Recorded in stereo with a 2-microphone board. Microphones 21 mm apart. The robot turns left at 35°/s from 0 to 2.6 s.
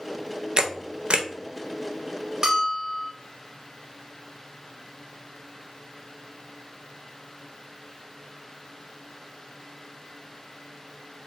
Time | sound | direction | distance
0.6 | a camera shutter | 35° right (ahead or behind) | 0.5 m
2.4 | a bell | 40° right (ahead or behind) | 1.3 m